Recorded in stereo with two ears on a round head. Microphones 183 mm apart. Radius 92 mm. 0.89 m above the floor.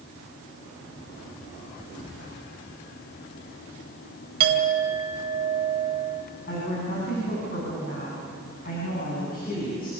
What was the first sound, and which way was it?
A clink, 55° right (ahead or behind).